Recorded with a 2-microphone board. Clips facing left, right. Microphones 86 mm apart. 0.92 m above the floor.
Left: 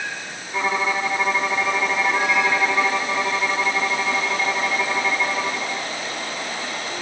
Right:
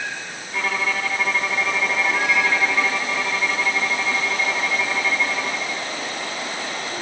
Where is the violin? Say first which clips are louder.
Left 2 dB; 20° left (ahead or behind).